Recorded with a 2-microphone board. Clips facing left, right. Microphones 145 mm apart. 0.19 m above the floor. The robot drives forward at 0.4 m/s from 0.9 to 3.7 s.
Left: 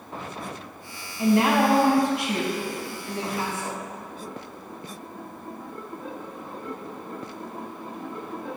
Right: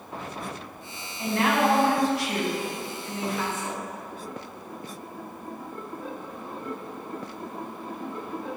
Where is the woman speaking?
20° left (ahead or behind), 1.0 m; by 3.8 s 15° left (ahead or behind), 1.4 m.